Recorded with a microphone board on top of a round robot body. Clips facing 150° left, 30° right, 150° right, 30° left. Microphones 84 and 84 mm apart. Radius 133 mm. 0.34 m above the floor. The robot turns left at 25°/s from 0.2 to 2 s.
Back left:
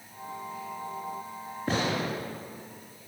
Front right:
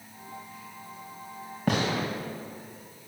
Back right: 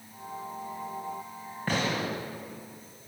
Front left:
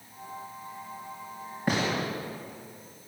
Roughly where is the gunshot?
Ahead right.